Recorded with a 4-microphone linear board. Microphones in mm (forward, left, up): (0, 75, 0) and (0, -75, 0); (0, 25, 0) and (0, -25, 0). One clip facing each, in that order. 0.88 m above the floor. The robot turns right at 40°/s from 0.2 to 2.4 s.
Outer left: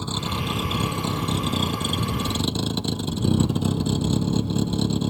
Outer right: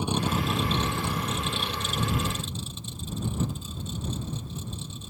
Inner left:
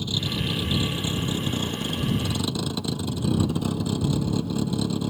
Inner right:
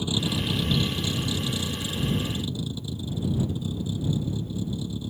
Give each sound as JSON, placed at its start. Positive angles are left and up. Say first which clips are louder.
{"t": 0.0, "sound": "a vehicle", "louder": "outer right 2 dB, inner right 1 dB", "azimuth_deg": -15}